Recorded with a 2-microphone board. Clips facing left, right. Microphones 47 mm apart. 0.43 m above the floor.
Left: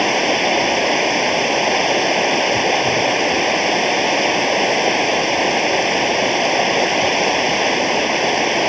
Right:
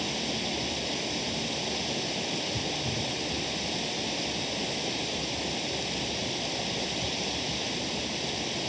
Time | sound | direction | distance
0.0 | running water | 80° left | ?